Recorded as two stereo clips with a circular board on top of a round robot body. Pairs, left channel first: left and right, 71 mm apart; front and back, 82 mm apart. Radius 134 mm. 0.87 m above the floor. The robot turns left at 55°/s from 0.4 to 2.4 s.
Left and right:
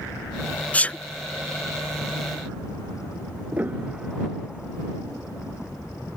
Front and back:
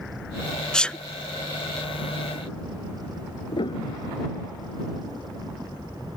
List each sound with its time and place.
0.7 s a sneeze: 65° left; by 1.0 s 50° left
3.5 s a piano: 25° right